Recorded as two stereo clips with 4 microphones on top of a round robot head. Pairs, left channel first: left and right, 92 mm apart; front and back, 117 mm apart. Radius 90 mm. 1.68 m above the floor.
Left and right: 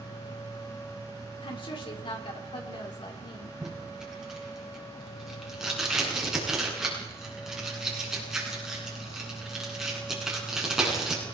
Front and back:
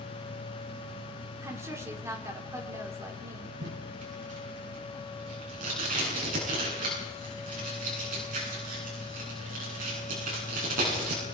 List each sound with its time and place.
1.4 s a woman speaking: 115° left, 5.5 m
3.6 s tape being pulled: 175° right, 9 m